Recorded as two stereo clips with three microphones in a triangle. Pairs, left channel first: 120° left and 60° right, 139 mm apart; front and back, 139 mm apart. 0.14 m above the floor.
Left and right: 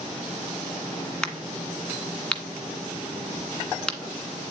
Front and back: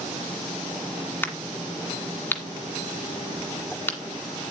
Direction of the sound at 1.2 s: 45° left.